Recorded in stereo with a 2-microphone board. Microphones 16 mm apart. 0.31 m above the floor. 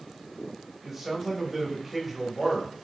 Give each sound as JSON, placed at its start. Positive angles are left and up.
{"t": 0.8, "sound": "a man speaking", "side_deg": -15, "distance_m": 1.1}